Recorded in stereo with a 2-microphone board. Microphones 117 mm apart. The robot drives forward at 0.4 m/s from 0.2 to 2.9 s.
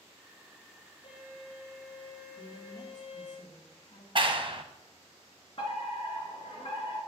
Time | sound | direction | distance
1.0 | a violin | 55° left (ahead or behind) | 4 m
2.4 | a man speaking | 80° left | 1.9 m
4.2 | a clap | 45° right (ahead or behind) | 0.9 m
5.6 | a fire alarm | 50° left (ahead or behind) | 3 m